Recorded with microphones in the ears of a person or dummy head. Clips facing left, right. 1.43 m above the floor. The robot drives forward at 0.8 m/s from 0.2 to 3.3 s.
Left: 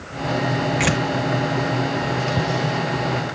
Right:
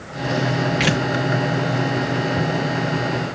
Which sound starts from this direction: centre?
Tearing paper, at 0.8 s.